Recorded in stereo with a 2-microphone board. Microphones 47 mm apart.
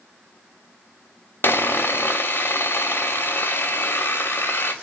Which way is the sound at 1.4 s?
45° left (ahead or behind).